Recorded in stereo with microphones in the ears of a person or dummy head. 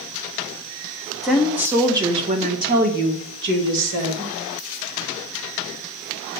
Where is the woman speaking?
Centre (ahead or behind), 1.5 m; by 4.3 s 75° right (ahead or behind), 2.0 m.